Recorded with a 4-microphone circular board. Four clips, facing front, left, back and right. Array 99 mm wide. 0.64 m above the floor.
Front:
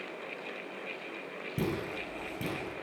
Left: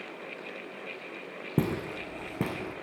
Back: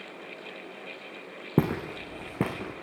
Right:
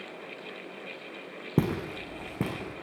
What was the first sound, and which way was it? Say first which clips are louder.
Footsteps: right 1 dB, back 7 dB; 165° right.